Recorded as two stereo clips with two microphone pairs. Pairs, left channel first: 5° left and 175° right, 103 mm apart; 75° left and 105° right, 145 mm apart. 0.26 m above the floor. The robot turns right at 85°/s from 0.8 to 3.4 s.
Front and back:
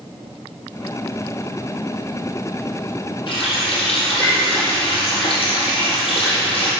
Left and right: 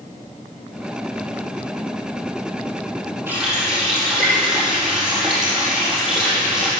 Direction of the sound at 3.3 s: 30° right.